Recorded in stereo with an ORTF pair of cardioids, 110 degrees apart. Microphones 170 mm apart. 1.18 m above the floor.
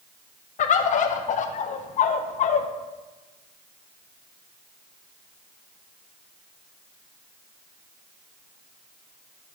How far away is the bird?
About 0.7 m.